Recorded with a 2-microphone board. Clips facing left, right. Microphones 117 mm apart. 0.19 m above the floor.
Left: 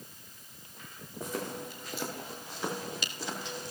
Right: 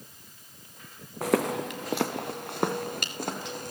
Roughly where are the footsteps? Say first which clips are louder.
Right 11 dB; right.